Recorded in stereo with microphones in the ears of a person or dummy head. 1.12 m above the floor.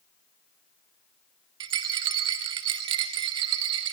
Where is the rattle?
20° right (ahead or behind), 1.0 m.